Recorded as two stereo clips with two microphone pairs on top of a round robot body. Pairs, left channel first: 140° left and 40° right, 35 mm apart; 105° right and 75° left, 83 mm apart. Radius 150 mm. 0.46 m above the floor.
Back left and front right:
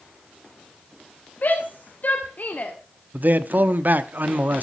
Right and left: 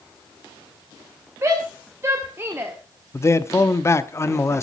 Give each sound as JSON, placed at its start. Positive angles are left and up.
{"t": 1.4, "sound": "a shout", "azimuth_deg": 125, "distance_m": 2.5}
{"t": 3.1, "sound": "a man speaking", "azimuth_deg": -55, "distance_m": 1.0}